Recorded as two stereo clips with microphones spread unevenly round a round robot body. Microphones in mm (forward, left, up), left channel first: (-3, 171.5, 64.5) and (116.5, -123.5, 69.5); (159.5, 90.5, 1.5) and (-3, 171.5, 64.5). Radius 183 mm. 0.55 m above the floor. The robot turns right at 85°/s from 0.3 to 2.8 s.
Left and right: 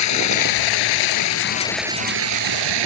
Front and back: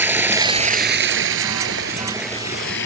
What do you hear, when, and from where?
0.0 s running water: 75° left; by 2.9 s 70° right